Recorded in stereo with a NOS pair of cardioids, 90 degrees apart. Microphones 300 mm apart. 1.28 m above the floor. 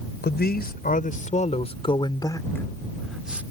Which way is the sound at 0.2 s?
35° left.